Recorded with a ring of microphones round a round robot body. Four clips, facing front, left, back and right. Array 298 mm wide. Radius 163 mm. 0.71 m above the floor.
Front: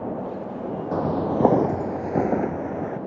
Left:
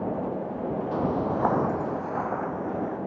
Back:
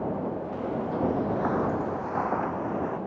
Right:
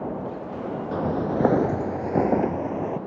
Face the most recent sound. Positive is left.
turn(degrees=-60)